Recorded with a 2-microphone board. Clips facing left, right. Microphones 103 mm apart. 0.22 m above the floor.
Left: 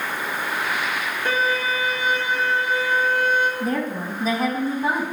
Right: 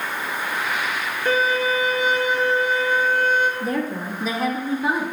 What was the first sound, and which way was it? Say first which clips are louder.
A violin: right 3 dB; 55° left (ahead or behind).